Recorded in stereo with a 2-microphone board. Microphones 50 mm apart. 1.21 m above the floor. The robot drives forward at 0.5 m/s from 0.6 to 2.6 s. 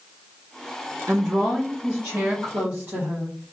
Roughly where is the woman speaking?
Right.